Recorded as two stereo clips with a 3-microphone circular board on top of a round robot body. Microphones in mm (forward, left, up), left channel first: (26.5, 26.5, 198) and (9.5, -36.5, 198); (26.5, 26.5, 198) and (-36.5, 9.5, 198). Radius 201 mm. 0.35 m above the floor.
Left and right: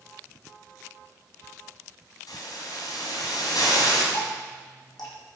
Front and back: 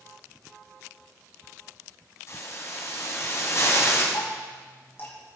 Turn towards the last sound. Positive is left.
turn(degrees=75)